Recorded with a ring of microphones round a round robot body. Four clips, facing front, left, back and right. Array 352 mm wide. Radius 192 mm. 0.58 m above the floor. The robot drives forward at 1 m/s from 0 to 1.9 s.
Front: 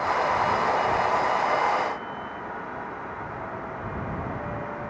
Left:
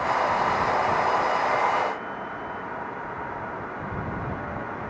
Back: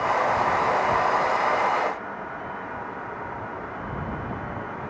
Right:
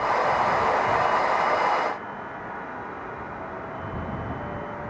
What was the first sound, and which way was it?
Only background noise.